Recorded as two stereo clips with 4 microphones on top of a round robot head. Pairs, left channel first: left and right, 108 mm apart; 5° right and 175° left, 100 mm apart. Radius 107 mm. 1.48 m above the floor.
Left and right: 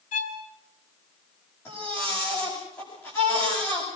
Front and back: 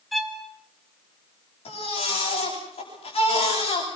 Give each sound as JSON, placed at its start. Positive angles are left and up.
{"t": 0.1, "sound": "a violin", "azimuth_deg": 85, "distance_m": 3.0}
{"t": 1.6, "sound": "a baby crying", "azimuth_deg": 20, "distance_m": 10.0}